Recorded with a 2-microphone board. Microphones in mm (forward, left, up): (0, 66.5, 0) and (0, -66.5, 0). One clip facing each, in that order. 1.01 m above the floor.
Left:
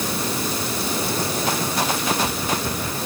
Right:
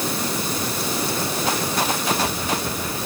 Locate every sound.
Only background noise.